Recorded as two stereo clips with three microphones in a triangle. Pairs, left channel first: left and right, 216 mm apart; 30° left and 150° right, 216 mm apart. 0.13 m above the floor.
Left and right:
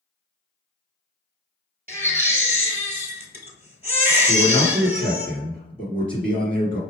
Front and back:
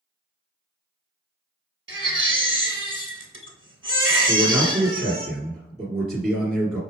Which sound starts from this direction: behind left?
A man speaking, at 4.3 s.